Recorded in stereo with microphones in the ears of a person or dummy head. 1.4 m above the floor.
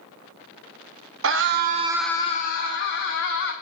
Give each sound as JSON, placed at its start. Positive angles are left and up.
{"t": 1.2, "sound": "a scream", "side_deg": -65, "distance_m": 1.0}